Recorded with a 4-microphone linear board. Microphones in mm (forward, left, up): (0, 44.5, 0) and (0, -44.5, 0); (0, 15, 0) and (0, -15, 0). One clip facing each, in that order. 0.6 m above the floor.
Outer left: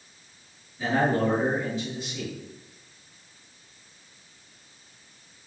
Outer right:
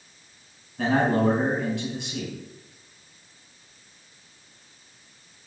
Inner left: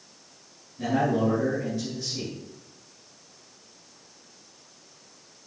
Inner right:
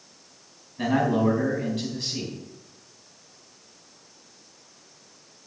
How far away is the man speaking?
About 4.5 m.